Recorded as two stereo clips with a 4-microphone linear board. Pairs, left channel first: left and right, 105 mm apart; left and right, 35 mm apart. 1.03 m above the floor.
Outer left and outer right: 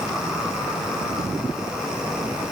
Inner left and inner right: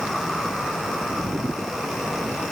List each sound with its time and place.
Only background noise.